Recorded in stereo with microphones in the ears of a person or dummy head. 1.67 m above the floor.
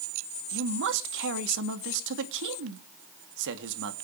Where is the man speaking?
65° right (ahead or behind), 2.5 m.